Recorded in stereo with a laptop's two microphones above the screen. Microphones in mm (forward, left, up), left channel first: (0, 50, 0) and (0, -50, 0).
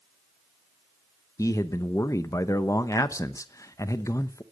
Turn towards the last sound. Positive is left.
turn(degrees=30)  # may be behind; listen again after turning